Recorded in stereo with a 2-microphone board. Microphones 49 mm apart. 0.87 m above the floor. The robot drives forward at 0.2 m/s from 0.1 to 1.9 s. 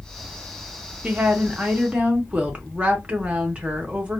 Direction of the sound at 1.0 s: 30° right (ahead or behind).